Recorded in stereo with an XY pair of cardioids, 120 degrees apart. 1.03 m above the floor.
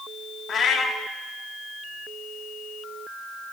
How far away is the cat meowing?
About 1.0 m.